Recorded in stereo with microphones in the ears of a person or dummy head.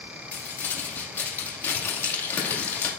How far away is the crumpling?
About 2 m.